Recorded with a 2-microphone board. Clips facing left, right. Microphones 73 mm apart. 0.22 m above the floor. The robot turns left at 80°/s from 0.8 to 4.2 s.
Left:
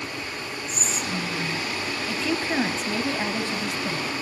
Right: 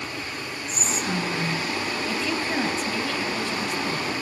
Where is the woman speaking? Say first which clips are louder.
Left 2 dB; centre (ahead or behind), 1.1 m; by 4.1 s 10° left (ahead or behind), 1.1 m.